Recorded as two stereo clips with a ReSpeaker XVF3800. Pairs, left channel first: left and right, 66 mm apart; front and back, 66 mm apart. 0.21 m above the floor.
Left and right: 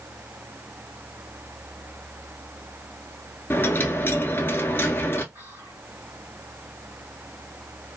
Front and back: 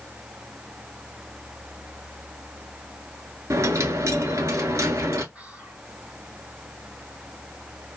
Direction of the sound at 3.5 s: 140° left.